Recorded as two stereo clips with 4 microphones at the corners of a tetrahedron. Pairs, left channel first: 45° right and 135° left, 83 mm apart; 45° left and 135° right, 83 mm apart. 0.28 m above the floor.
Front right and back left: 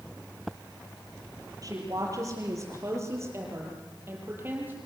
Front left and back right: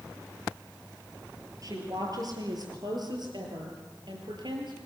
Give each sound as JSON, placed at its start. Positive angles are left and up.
{"t": 1.6, "sound": "a woman speaking", "azimuth_deg": 180, "distance_m": 7.5}